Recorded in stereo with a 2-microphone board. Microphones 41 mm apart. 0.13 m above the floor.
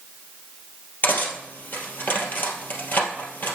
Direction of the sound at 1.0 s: 50° left (ahead or behind).